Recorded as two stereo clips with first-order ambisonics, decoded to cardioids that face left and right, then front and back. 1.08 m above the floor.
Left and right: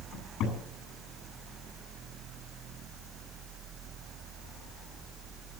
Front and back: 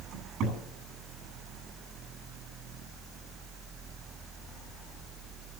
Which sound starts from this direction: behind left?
A cupboard door, at 0.1 s.